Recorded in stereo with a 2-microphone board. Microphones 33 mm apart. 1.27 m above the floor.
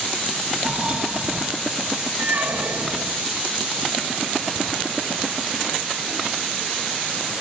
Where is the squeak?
75° right (ahead or behind), 2 m.